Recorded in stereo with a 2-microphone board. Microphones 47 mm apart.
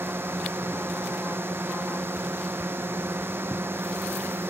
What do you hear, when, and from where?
0.0 s a drone: 60° right (ahead or behind)